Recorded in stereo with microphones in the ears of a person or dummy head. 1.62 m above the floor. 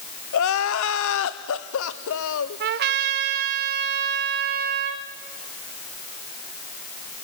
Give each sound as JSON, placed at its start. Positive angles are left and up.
{"t": 0.3, "sound": "crying", "side_deg": 70, "distance_m": 1.0}
{"t": 2.6, "sound": "a trumpet", "side_deg": -50, "distance_m": 1.3}